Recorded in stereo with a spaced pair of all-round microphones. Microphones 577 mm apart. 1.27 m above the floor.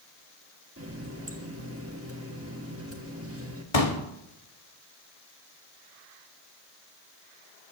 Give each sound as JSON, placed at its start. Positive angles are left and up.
{"t": 0.8, "sound": "a running tap", "side_deg": -25, "distance_m": 1.7}
{"t": 3.7, "sound": "a pop", "side_deg": 75, "distance_m": 1.6}